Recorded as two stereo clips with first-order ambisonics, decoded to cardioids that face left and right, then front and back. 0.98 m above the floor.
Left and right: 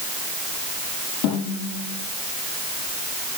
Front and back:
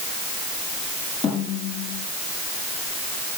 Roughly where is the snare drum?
Left.